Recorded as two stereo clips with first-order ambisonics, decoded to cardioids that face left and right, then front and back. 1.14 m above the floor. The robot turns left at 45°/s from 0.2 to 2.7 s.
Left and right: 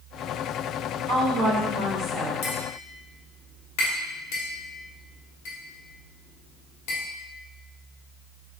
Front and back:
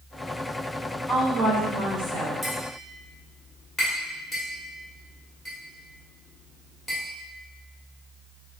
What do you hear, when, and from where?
1.1 s a woman speaking: 115° right, 1.6 m; by 2.3 s 170° right, 1.6 m
2.4 s tapping: 100° left, 1.3 m; by 7.0 s 85° left, 1.3 m